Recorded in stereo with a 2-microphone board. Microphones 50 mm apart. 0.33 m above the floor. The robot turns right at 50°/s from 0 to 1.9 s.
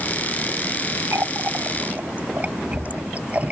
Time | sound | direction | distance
1.1 | a running tap | 70° right (ahead or behind) | ?